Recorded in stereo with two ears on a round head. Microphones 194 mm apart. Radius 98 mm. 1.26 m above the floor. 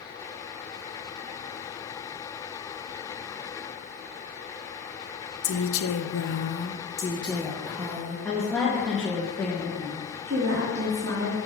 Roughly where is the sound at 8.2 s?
Centre.